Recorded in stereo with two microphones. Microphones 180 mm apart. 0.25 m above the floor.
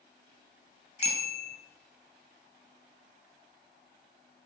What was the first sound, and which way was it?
A bicycle bell, 35° left (ahead or behind).